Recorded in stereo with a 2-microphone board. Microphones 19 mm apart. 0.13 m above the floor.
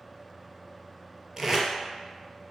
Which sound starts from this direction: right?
Tape being pulled, at 1.4 s.